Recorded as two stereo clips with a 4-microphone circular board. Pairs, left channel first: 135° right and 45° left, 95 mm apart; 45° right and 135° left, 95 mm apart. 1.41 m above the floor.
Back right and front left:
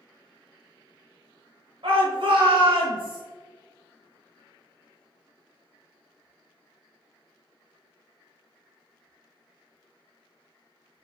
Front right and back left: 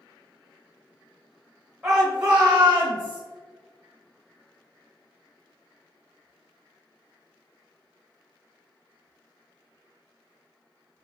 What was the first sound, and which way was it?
A shout, 80° left.